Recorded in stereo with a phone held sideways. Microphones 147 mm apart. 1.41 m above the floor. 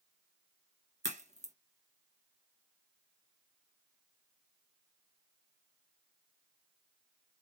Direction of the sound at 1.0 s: 50° right (ahead or behind).